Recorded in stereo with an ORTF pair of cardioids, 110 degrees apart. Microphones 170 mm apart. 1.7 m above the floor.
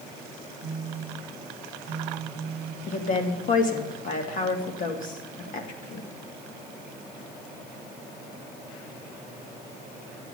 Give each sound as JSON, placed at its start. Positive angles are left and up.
{"t": 0.6, "sound": "a phone buzzing", "azimuth_deg": -40, "distance_m": 0.6}
{"t": 2.9, "sound": "a woman speaking", "azimuth_deg": 55, "distance_m": 2.5}